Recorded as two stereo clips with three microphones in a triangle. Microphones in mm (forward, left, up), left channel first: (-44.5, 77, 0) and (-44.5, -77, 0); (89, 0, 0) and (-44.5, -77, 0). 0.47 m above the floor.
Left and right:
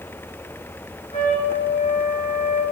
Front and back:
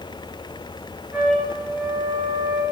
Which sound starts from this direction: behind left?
A trumpet, at 1.1 s.